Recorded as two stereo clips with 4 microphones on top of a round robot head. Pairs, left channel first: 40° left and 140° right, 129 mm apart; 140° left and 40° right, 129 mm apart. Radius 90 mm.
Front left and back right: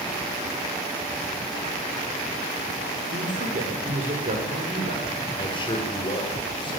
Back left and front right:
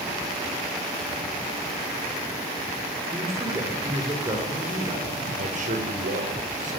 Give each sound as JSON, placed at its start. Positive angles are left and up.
{"t": 3.1, "sound": "a man speaking", "azimuth_deg": -110, "distance_m": 5.5}
{"t": 5.3, "sound": "a man speaking", "azimuth_deg": -15, "distance_m": 6.0}